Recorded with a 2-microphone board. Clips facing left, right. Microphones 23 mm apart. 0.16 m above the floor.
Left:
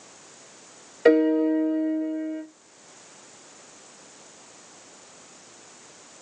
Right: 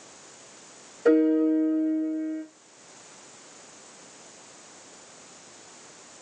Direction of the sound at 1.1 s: 65° left (ahead or behind).